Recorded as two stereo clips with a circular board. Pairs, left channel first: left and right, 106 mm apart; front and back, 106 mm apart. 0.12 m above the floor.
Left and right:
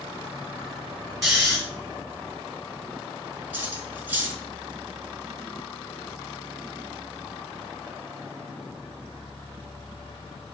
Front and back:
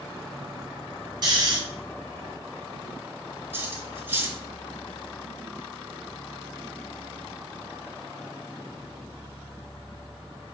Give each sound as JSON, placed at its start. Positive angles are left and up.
{"t": 1.2, "sound": "snoring", "azimuth_deg": -175, "distance_m": 1.4}
{"t": 3.5, "sound": "cutlery clinking", "azimuth_deg": -140, "distance_m": 0.8}